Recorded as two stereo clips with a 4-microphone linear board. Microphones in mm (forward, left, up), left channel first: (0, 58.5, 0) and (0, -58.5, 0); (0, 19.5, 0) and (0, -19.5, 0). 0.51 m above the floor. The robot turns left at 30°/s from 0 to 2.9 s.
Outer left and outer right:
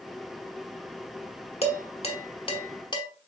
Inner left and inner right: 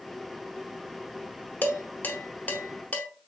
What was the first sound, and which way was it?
Dishes clattering, 55° left (ahead or behind).